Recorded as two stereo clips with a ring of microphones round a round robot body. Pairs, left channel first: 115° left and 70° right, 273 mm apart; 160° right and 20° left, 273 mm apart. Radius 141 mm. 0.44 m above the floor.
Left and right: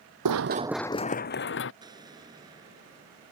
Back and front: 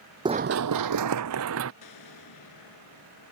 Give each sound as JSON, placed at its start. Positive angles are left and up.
{"t": 0.2, "sound": "running footsteps", "azimuth_deg": -50}
{"t": 1.8, "sound": "an explosion", "azimuth_deg": -145}